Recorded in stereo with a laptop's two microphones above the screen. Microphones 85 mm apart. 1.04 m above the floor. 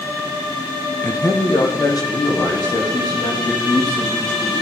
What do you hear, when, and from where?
1.0 s a man speaking: 30° left (ahead or behind), 0.6 m; by 4.5 s 55° left (ahead or behind), 6 m